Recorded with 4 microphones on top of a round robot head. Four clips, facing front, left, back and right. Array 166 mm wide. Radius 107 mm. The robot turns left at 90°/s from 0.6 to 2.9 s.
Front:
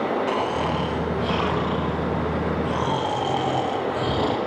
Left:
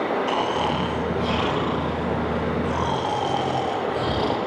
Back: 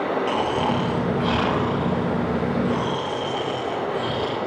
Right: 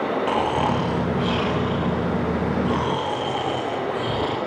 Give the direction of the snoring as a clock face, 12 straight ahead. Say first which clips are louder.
Right 2 dB, back 1 dB; 4 o'clock.